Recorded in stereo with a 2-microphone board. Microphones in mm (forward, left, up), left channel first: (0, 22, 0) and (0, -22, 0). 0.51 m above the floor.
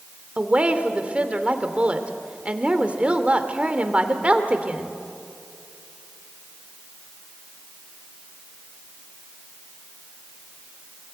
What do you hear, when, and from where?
0.4 s a woman speaking: 25° right (ahead or behind), 1.8 m